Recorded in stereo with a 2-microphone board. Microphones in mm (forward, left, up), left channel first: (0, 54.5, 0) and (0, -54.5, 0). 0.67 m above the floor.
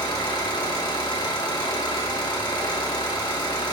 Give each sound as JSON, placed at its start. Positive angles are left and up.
{"t": 0.0, "sound": "an engine running", "side_deg": 40, "distance_m": 2.0}